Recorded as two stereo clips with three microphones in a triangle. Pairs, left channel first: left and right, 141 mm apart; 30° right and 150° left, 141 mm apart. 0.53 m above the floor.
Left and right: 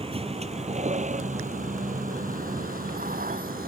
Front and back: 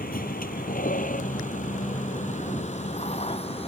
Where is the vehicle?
40° right; by 3.7 s 75° right.